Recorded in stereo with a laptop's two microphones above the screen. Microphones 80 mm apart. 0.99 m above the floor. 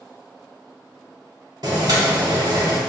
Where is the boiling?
55° right (ahead or behind), 1.1 m.